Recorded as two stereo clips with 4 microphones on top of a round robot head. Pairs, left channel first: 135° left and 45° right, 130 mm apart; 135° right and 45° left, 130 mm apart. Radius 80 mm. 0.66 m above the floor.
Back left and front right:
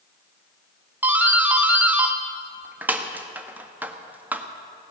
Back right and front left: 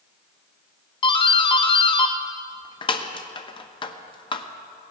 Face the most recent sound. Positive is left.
turn(degrees=-115)